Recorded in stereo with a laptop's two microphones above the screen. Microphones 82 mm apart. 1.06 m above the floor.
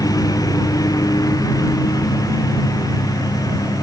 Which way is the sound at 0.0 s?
50° left (ahead or behind).